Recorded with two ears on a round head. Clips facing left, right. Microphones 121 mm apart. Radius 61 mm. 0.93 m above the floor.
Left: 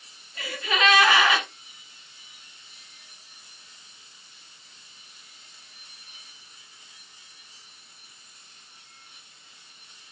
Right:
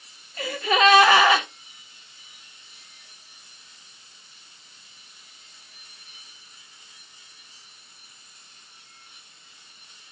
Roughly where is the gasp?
Right.